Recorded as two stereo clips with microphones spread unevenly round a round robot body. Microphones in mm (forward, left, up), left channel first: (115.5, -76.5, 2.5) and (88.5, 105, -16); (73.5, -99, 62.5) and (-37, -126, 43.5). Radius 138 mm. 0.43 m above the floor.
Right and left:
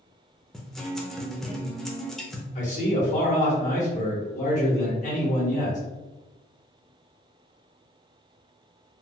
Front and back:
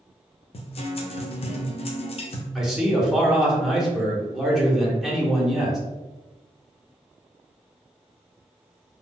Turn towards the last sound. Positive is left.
turn(degrees=-95)